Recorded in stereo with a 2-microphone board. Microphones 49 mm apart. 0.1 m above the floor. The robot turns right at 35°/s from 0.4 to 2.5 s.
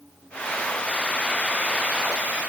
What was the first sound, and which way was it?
Only background noise.